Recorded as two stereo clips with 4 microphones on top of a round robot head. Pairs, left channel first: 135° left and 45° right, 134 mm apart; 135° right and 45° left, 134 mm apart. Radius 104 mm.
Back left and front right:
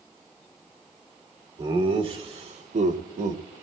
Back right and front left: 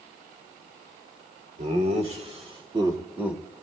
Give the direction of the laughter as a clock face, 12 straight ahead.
12 o'clock.